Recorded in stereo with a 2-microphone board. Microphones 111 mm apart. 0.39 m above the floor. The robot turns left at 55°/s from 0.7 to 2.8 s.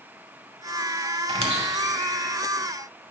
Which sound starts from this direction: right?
A squeak, at 1.3 s.